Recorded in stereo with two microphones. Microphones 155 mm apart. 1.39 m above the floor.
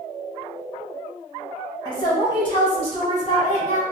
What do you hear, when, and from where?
1.9 s a woman speaking: 30° left (ahead or behind), 2.0 m; by 3.8 s 50° left (ahead or behind), 1.0 m